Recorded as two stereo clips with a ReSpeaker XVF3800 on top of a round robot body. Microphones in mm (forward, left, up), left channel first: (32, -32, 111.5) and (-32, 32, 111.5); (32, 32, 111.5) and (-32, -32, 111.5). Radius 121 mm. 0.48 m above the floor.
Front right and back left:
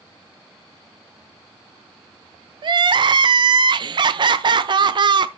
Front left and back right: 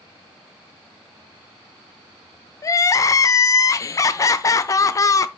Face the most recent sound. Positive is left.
turn(degrees=100)